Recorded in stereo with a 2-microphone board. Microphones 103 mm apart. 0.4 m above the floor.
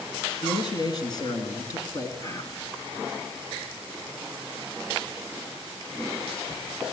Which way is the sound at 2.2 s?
30° left (ahead or behind).